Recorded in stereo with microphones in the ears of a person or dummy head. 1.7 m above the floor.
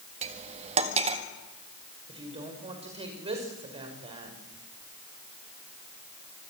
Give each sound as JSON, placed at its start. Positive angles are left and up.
{"t": 0.2, "sound": "cutlery clinking", "side_deg": -35, "distance_m": 1.6}
{"t": 2.1, "sound": "a woman speaking", "side_deg": -35, "distance_m": 5.5}